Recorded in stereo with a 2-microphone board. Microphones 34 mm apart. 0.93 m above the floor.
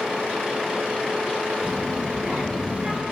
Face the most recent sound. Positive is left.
turn(degrees=-20)  # may be behind; listen again after turning